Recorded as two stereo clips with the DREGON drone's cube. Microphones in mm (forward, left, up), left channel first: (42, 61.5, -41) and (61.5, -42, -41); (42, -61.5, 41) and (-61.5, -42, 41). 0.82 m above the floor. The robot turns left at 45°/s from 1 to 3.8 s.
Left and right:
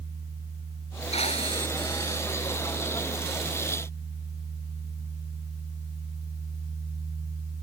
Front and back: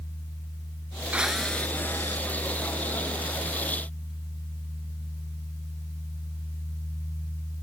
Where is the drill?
90° left; by 2.2 s 40° left.